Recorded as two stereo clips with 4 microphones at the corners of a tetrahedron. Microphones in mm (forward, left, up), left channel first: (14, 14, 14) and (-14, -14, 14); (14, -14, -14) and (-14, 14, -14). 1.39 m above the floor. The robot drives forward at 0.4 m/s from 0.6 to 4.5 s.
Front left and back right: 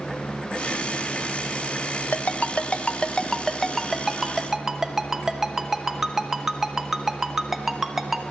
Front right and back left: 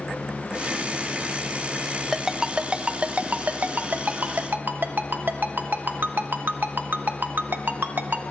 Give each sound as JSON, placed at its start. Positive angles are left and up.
{"t": 2.1, "sound": "a ringtone", "azimuth_deg": 55, "distance_m": 0.7}